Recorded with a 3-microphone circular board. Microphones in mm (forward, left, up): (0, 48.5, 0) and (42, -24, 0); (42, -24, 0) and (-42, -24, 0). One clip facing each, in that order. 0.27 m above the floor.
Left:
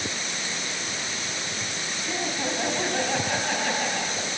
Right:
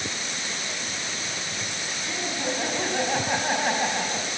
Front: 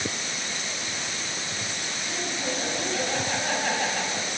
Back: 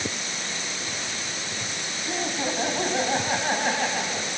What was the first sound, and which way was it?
Laughter, straight behind.